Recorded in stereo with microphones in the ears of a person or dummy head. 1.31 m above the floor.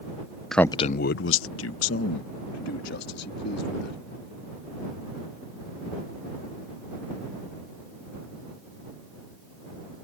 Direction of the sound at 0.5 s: Centre (ahead or behind).